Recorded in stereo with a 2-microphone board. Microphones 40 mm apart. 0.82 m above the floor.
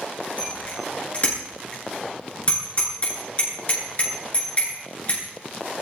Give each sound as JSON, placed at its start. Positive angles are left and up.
{"t": 0.4, "sound": "a bicycle bell", "side_deg": 35, "distance_m": 9.5}